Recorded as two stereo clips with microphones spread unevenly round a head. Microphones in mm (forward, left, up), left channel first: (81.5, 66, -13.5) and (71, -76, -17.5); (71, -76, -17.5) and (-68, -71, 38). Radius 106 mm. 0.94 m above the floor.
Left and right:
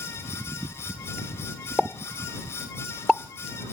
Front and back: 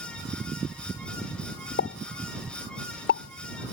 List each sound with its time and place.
1.8 s a pop: straight ahead